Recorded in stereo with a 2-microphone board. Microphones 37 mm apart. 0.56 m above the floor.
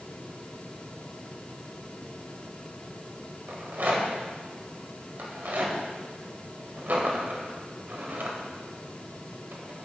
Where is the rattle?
65° right (ahead or behind), 1.6 m.